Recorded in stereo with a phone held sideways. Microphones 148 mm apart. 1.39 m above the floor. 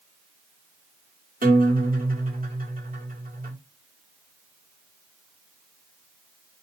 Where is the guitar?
80° right, 1.6 m.